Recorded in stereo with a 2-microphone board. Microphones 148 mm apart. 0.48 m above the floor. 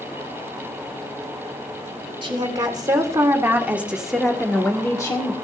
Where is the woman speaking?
35° right (ahead or behind), 1.8 m; by 5.3 s 25° left (ahead or behind), 1.3 m.